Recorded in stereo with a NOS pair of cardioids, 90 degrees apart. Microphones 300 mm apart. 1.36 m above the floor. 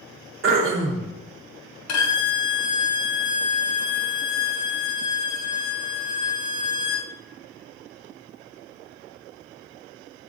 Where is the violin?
65° left, 1.0 m.